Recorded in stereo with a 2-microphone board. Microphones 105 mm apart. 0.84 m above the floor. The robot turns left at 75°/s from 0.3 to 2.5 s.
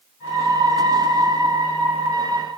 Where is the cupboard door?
I don't hear a cupboard door.